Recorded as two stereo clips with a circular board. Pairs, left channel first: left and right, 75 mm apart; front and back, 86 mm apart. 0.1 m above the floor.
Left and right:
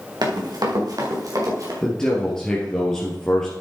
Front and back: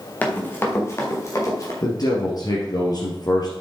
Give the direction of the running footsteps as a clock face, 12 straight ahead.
2 o'clock.